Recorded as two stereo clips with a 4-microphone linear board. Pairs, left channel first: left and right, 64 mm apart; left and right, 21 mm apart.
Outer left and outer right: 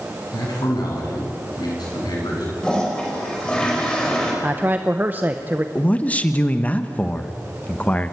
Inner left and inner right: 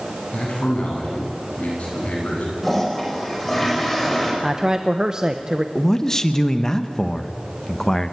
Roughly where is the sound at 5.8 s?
Left.